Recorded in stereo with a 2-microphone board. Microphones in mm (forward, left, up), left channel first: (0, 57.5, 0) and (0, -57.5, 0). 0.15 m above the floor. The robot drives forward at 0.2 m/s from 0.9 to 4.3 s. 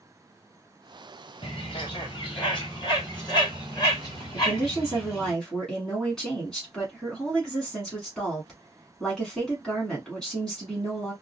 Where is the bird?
55° left (ahead or behind), 1.1 m; by 5.3 s 35° left (ahead or behind), 1.5 m.